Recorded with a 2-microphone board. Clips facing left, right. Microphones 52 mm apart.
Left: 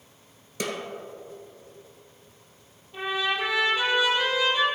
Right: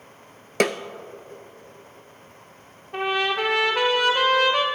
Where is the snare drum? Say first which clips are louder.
Right 10 dB; 75° right (ahead or behind), 0.5 m.